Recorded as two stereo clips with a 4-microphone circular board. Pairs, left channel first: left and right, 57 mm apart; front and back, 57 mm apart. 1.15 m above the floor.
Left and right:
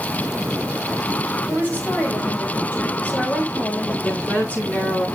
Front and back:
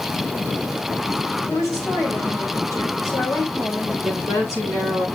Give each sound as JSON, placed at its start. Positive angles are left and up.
{"t": 1.5, "sound": "a woman speaking", "azimuth_deg": 30, "distance_m": 4.5}
{"t": 4.0, "sound": "a woman speaking", "azimuth_deg": 20, "distance_m": 9.5}